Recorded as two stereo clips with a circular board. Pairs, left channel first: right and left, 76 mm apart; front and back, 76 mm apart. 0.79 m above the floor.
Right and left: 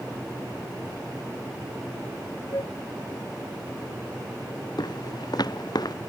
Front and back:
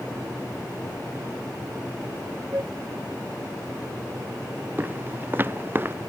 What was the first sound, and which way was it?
A flute, 130° right.